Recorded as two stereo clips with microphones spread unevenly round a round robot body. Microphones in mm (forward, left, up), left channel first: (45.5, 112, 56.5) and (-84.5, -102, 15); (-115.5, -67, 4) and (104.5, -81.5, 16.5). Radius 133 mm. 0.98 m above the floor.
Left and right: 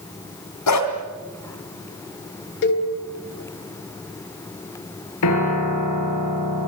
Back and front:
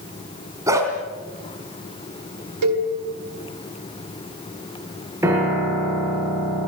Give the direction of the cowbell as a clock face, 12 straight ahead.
12 o'clock.